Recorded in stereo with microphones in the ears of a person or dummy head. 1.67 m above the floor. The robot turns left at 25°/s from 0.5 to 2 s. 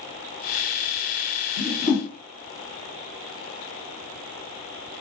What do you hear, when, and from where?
1.6 s a whoosh: 45° left (ahead or behind), 1.5 m; by 2.1 s 50° left (ahead or behind), 1.5 m